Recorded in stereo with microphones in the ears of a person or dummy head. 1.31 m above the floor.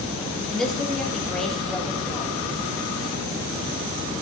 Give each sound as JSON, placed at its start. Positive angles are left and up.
{"t": 0.5, "sound": "a woman speaking", "side_deg": 5, "distance_m": 2.0}